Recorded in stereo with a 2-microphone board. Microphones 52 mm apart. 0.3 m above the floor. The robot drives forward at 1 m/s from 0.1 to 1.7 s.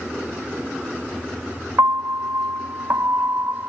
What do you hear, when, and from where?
1.8 s a piano: 60° right (ahead or behind)